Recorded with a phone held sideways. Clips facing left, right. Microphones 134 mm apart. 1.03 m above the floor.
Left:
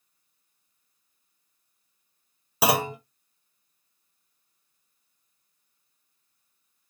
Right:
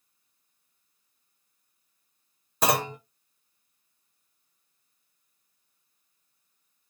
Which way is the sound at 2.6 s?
10° left (ahead or behind).